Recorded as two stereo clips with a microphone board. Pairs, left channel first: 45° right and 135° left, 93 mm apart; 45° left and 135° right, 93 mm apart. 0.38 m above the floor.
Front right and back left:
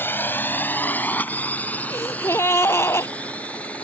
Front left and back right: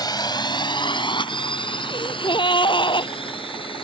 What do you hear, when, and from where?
0.0 s a drone: 15° left; by 3.8 s 30° left
1.9 s a gasp: 15° left